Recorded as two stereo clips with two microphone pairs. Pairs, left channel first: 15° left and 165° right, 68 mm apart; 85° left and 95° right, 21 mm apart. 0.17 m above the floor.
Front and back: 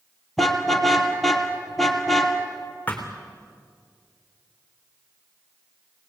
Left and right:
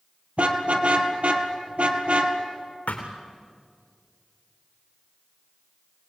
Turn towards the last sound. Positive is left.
turn(degrees=85)